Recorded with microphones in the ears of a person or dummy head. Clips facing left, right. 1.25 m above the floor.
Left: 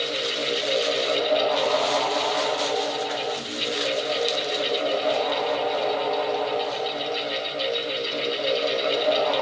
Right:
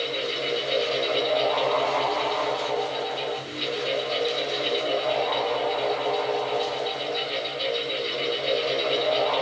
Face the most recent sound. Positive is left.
turn(degrees=70)  # may be behind; listen again after turning